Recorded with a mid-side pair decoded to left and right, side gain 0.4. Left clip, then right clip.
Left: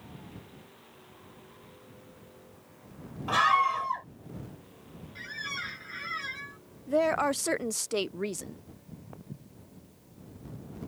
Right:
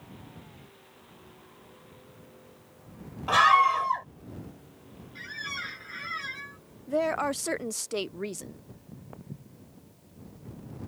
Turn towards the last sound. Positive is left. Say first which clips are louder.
# right 1 dB
turn(degrees=-15)